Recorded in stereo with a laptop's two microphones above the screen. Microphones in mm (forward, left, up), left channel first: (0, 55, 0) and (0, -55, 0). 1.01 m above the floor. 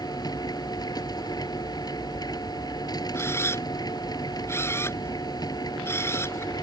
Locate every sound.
0.0 s a machine running: 35° left (ahead or behind)
3.1 s a camera shutter: 25° left (ahead or behind)